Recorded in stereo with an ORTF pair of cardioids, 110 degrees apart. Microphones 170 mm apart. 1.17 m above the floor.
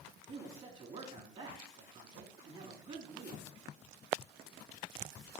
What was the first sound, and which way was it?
A man speaking, 35° right.